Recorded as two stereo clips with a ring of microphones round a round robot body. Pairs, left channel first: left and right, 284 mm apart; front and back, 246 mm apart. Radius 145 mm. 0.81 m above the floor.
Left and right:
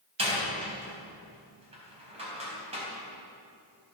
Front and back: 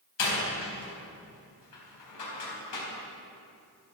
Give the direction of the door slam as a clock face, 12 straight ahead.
1 o'clock.